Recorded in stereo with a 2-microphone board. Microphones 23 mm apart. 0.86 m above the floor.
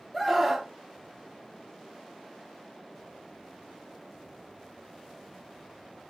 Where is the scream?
5° right (ahead or behind), 1.1 m.